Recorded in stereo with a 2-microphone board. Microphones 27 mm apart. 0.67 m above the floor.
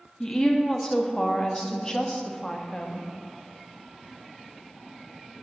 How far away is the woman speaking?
About 0.8 m.